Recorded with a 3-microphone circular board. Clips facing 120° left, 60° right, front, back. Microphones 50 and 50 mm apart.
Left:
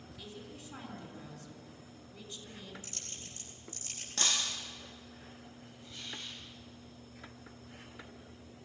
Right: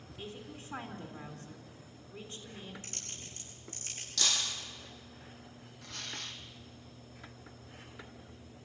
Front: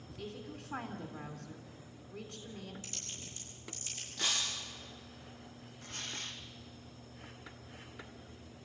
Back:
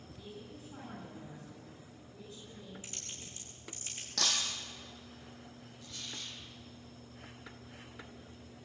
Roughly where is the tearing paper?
Ahead right.